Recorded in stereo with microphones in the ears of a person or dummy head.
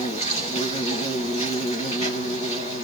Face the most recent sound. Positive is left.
turn(degrees=35)  # may be behind; listen again after turning